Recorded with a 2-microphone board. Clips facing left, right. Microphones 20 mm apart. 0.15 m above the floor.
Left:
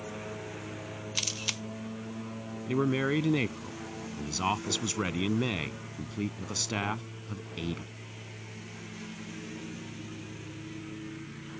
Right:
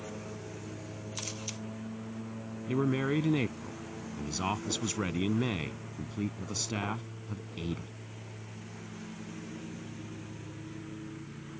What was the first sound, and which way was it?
A lawn mower, 25° left (ahead or behind).